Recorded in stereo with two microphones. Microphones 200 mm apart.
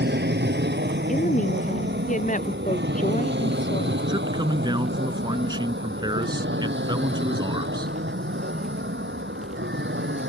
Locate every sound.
0.0 s an aircraft: 55° right (ahead or behind); by 10.3 s 70° right (ahead or behind)
1.1 s a woman speaking: 40° left (ahead or behind)
4.1 s a man speaking: 20° right (ahead or behind)